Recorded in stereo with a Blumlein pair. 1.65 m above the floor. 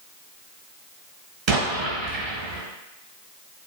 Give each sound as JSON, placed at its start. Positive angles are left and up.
{"t": 1.5, "sound": "an explosion", "azimuth_deg": -35, "distance_m": 1.1}